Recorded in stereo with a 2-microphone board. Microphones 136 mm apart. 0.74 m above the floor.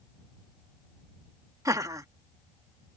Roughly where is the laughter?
Right.